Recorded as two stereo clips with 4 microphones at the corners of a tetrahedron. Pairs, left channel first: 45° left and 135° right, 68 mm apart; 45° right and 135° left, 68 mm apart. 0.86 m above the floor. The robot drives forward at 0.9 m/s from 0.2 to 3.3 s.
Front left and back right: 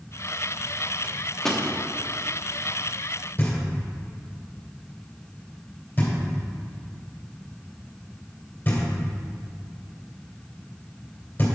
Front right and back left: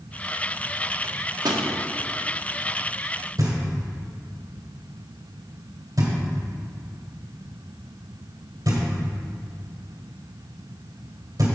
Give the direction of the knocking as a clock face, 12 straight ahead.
8 o'clock.